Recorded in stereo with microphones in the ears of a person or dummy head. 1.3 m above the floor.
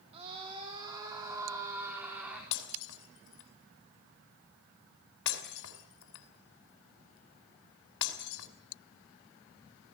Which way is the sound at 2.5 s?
70° left (ahead or behind).